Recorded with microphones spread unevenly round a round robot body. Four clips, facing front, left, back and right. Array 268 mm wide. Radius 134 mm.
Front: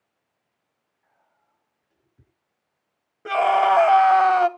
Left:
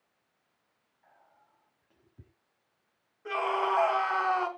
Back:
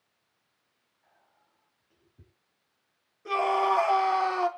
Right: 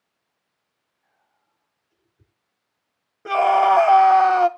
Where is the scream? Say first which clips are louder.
Right 13 dB, front 7 dB; 50° right, 2 m.